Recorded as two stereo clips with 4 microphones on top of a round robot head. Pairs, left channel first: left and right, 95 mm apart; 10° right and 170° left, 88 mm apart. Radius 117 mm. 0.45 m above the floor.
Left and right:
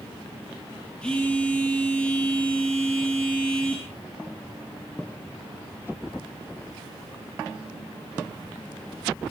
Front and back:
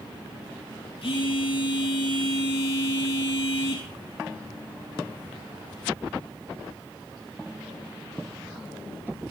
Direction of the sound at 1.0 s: 10° left.